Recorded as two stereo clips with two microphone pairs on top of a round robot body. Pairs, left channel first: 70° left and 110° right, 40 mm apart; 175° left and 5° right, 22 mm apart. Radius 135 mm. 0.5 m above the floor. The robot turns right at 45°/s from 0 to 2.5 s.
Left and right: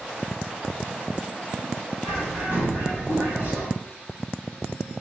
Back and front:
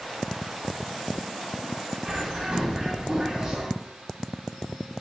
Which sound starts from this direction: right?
A bird, at 2.0 s.